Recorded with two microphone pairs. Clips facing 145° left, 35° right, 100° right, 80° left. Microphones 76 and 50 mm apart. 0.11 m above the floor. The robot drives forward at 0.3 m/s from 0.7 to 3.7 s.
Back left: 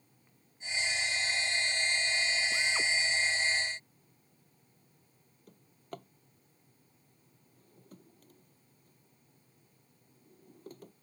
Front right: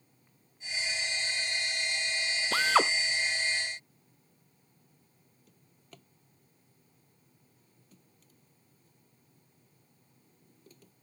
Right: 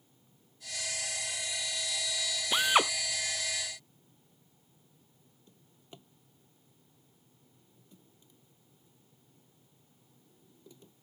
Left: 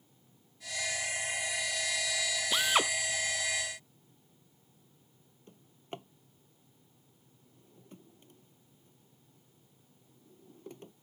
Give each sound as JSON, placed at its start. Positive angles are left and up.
{"t": 2.5, "sound": "a drill", "azimuth_deg": -25}
{"t": 5.5, "sound": "a drawer", "azimuth_deg": 110}